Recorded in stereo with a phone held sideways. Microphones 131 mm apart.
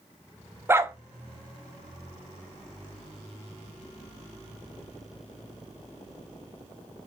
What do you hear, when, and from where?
0.7 s a dog barking: 20° right (ahead or behind), 0.6 m